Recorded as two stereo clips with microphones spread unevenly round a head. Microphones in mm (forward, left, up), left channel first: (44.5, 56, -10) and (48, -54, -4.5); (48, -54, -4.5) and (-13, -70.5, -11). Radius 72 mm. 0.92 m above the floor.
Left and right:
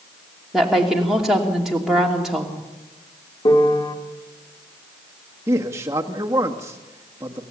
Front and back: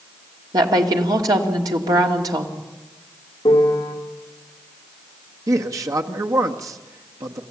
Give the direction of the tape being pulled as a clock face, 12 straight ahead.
No tape being pulled in this recording.